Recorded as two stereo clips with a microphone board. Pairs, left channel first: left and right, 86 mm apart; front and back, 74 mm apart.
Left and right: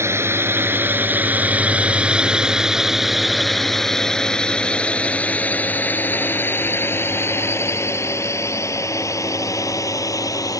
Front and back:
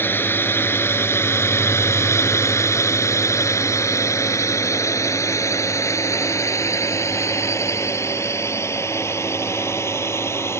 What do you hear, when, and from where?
0.0 s a drone: 45° right; by 10.6 s 50° left